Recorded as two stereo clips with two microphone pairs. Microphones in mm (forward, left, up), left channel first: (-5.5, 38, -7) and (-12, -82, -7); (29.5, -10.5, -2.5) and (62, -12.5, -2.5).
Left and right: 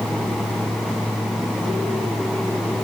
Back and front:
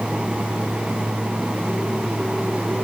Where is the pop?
I don't hear a pop.